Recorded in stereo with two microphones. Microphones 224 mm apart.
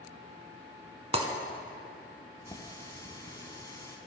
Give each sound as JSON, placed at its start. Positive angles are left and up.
{"t": 1.1, "sound": "breaking glass", "side_deg": -30, "distance_m": 1.1}
{"t": 2.5, "sound": "a running tap", "side_deg": 15, "distance_m": 0.8}